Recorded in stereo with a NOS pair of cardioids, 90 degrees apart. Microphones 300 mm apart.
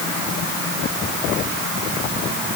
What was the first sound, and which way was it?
Only background noise.